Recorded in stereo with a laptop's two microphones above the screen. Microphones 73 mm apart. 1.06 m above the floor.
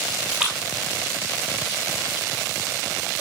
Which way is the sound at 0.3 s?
15° right (ahead or behind).